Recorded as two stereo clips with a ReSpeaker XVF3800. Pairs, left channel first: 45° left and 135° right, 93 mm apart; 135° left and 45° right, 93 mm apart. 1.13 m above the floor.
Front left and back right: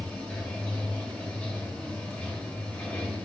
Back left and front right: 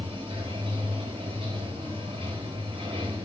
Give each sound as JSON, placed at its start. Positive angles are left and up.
{"t": 0.0, "sound": "running water", "azimuth_deg": -25, "distance_m": 2.5}